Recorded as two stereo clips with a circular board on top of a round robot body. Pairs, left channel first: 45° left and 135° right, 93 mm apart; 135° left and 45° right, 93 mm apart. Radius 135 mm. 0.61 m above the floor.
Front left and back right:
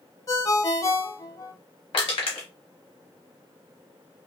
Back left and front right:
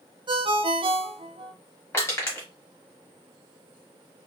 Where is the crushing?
70° left, 0.8 m.